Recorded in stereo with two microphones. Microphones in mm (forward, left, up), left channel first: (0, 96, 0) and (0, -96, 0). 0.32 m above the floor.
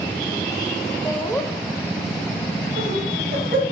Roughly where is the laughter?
Centre.